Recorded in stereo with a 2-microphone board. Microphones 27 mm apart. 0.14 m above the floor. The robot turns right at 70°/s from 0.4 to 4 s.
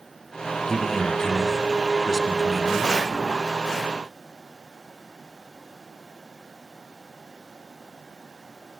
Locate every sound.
0.7 s a man speaking: 25° left (ahead or behind), 1.3 m; by 3.0 s 20° right (ahead or behind), 1.3 m